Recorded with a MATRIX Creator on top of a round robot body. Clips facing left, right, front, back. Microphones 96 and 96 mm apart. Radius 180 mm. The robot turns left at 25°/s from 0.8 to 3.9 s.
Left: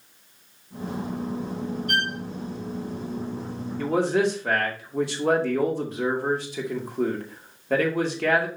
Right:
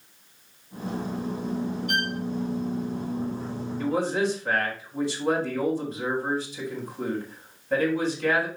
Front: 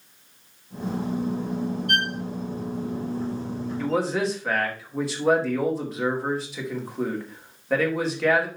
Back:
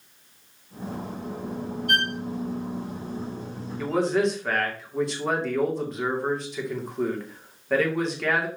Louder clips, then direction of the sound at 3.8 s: Left 3 dB, back 2 dB; 90° left.